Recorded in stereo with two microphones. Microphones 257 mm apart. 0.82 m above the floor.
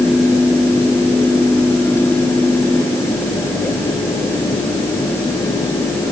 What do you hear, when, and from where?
Only background noise.